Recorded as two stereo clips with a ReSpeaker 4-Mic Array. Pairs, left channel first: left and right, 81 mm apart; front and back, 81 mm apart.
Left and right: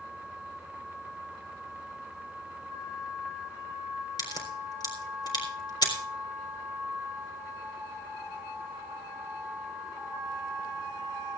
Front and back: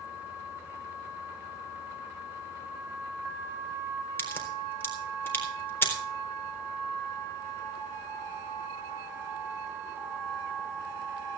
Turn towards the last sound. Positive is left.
turn(degrees=60)